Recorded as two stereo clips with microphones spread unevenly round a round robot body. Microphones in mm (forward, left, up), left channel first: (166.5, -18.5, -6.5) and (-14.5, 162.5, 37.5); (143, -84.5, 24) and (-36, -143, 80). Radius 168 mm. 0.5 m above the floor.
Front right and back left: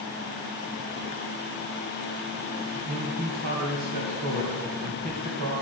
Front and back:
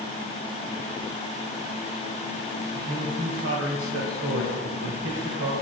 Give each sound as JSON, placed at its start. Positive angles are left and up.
{"t": 2.8, "sound": "a man speaking", "azimuth_deg": 175, "distance_m": 2.5}